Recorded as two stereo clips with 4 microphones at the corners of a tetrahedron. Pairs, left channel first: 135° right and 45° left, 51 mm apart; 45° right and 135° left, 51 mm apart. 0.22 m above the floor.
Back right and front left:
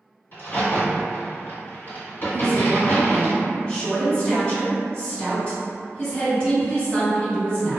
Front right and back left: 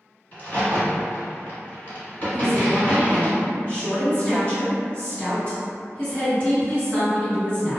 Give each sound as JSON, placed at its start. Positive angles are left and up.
{"t": 0.3, "sound": "a crack", "azimuth_deg": -95, "distance_m": 1.5}
{"t": 2.3, "sound": "a woman speaking", "azimuth_deg": -75, "distance_m": 1.8}